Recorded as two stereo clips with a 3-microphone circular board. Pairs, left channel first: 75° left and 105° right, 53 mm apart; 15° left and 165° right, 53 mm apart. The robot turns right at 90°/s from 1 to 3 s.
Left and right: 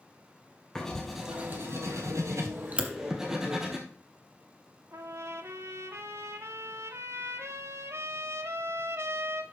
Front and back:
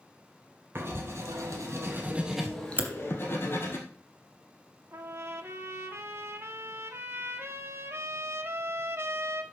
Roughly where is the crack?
Behind.